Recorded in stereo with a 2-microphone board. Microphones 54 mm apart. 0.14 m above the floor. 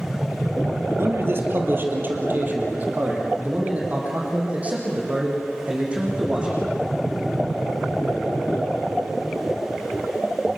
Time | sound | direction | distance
1.0 | a man speaking | 55° right (ahead or behind) | 3.5 m